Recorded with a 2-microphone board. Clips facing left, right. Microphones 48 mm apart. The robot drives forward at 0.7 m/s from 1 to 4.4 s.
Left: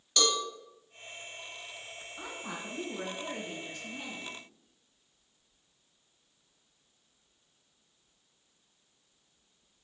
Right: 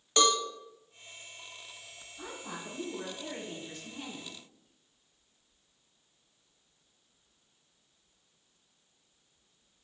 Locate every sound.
0.2 s a cowbell: 25° right (ahead or behind), 0.9 m
2.2 s a woman speaking: 50° left (ahead or behind), 2.5 m; by 4.4 s 35° left (ahead or behind), 3.5 m